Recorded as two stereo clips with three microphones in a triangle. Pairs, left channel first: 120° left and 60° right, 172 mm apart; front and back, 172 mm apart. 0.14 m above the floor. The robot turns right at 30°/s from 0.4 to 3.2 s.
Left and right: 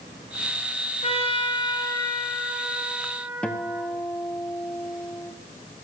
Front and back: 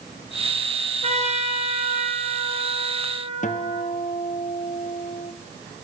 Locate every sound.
1.0 s a trumpet: 155° left, 1.8 m; by 3.9 s 140° right, 1.8 m
3.4 s a guitar: 35° left, 1.1 m